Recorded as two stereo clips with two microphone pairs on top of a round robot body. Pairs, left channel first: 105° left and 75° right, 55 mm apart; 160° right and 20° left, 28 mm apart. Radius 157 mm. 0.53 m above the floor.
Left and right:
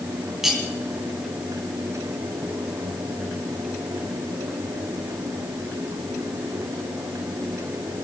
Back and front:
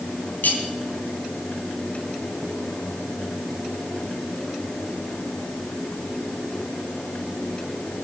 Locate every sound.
0.4 s cutlery clinking: 160° right, 3.5 m